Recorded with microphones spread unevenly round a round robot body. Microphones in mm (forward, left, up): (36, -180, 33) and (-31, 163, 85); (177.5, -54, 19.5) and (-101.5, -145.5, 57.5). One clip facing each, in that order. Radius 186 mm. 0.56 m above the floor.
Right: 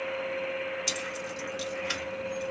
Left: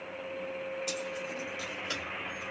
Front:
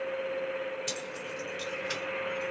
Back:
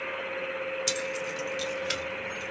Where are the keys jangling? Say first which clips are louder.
Even, back 5 dB; 130° right, 1.2 m; by 2.5 s 145° right, 1.9 m.